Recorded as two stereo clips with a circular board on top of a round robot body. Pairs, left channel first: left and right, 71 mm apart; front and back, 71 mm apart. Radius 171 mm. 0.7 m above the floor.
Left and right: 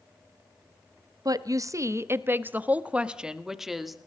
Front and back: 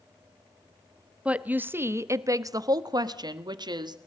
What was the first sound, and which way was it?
A woman speaking, 110° right.